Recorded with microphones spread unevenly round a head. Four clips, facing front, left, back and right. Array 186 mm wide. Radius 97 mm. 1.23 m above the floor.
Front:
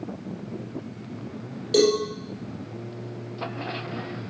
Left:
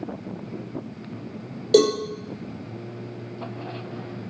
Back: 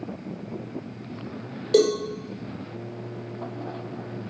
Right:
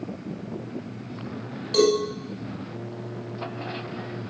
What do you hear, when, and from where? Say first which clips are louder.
1.7 s a cowbell: left 2 dB, even; 90° left, 5.5 m